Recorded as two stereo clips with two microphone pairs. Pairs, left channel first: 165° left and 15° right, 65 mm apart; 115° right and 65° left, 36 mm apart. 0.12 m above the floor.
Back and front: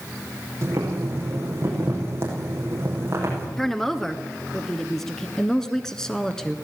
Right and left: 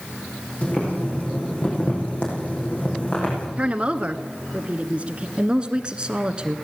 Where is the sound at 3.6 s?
85° left, 1.5 m.